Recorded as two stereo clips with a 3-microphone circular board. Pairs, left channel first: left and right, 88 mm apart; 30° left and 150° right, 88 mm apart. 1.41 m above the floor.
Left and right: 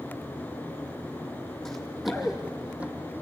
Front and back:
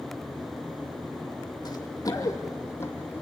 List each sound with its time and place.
1.6 s running footsteps: 5° left, 2.5 m; by 3.2 s 30° right, 2 m